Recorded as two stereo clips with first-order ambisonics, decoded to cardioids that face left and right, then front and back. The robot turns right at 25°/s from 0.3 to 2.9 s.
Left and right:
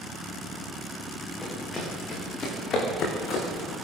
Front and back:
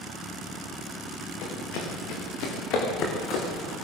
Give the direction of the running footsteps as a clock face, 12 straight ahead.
12 o'clock.